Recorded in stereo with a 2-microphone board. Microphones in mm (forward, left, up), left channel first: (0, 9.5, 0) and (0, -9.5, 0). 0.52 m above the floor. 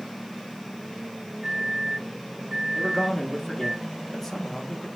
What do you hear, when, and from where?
1.4 s a microwave: 35° right (ahead or behind), 1.8 m
2.8 s a man speaking: 10° left (ahead or behind), 0.8 m